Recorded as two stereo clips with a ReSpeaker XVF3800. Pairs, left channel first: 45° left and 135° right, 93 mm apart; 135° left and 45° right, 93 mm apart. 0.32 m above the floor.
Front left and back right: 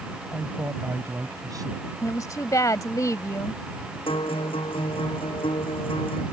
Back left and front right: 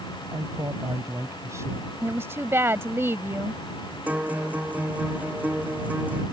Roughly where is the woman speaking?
Ahead.